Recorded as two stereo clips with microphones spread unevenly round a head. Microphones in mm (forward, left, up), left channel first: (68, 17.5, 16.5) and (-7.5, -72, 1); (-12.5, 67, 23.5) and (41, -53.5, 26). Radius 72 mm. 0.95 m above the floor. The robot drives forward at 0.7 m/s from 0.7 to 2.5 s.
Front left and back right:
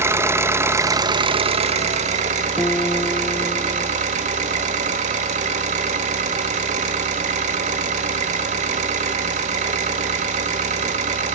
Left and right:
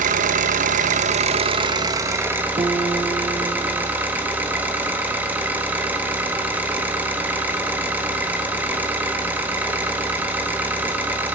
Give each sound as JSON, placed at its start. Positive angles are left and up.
{"t": 0.0, "sound": "an engine running", "azimuth_deg": -70, "distance_m": 0.9}
{"t": 2.6, "sound": "a guitar", "azimuth_deg": -35, "distance_m": 0.7}